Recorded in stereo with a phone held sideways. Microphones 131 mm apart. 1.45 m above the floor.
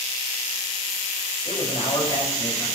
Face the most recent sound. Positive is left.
turn(degrees=50)  # may be behind; listen again after turning